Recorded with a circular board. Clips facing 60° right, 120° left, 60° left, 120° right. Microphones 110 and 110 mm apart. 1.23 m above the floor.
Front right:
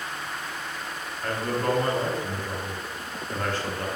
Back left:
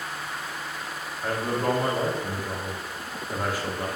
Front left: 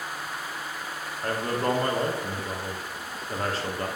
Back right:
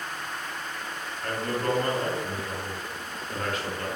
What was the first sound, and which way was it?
A man speaking, 50° left.